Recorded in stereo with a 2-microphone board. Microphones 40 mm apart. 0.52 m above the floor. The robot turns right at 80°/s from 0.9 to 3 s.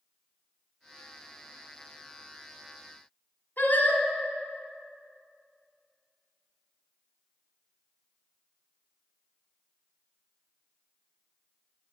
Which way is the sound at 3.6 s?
55° left (ahead or behind).